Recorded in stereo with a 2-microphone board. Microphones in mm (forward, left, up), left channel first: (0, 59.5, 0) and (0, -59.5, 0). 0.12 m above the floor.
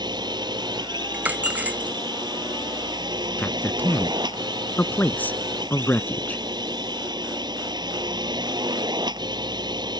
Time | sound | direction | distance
0.0 | a drone | 35° right (ahead or behind) | ?
1.1 | a dropped coin | 15° right (ahead or behind) | ?
3.4 | a man speaking | 15° left (ahead or behind) | ?